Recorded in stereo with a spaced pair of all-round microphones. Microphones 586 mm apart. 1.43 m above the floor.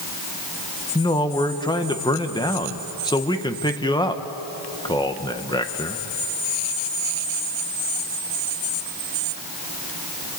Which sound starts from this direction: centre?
A man speaking, at 0.9 s.